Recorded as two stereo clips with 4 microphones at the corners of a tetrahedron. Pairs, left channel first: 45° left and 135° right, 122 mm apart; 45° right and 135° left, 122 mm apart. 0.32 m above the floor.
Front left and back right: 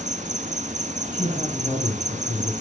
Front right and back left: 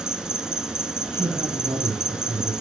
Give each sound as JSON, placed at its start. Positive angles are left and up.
{"t": 0.0, "sound": "an insect", "azimuth_deg": -140, "distance_m": 0.7}
{"t": 1.1, "sound": "a man speaking", "azimuth_deg": 95, "distance_m": 2.0}